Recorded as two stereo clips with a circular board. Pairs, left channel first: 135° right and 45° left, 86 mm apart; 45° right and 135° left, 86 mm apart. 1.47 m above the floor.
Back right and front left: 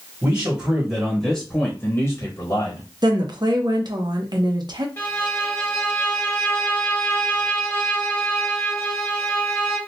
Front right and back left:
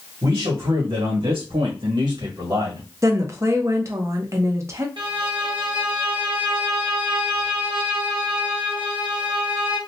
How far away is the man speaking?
About 1.5 m.